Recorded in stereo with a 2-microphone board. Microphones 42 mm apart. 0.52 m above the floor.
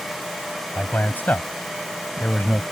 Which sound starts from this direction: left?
A man speaking, at 0.8 s.